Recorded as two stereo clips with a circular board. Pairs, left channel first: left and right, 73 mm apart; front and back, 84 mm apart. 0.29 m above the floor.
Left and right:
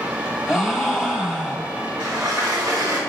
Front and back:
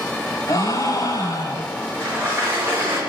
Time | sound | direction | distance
0.5 | a gasp | 5° right | 1.1 m
2.0 | a sliding door | 120° right | 2.5 m